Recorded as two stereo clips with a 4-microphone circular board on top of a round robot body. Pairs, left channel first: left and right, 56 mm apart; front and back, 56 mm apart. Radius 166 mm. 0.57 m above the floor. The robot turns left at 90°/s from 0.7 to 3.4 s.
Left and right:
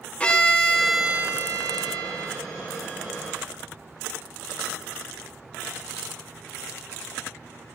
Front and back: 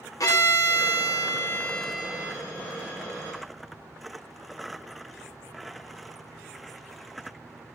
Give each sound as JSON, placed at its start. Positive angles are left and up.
{"t": 0.2, "sound": "a violin", "azimuth_deg": 25, "distance_m": 1.2}